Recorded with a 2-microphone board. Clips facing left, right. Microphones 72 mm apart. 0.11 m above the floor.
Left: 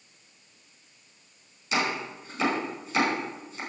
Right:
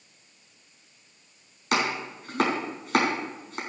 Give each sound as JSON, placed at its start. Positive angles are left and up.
{"t": 1.7, "sound": "chopping", "side_deg": -55, "distance_m": 5.0}